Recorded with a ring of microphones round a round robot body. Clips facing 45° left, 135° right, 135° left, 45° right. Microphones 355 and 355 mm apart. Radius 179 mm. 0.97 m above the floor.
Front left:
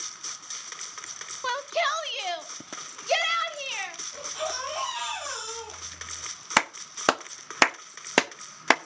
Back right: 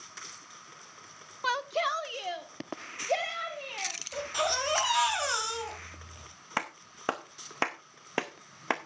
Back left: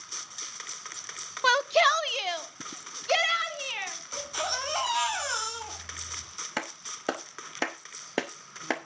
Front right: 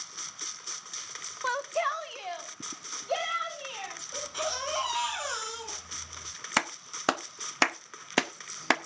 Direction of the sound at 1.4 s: 145° left.